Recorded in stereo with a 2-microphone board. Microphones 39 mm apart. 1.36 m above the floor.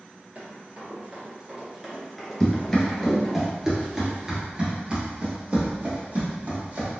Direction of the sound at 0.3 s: 50° right (ahead or behind).